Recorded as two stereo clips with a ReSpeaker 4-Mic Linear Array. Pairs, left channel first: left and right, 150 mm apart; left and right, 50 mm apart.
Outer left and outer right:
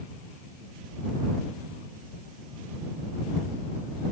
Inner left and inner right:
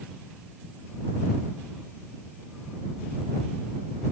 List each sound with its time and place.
Only background noise.